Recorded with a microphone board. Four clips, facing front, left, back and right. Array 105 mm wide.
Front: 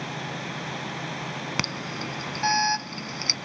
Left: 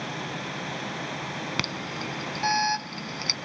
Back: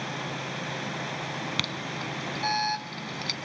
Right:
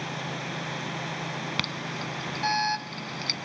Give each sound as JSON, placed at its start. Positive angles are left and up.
{"t": 1.6, "sound": "an alarm", "azimuth_deg": 15, "distance_m": 0.8}